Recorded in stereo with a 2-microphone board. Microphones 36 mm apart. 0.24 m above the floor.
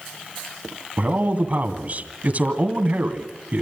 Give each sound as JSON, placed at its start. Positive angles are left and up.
{"t": 1.0, "sound": "a man speaking", "side_deg": -45, "distance_m": 2.0}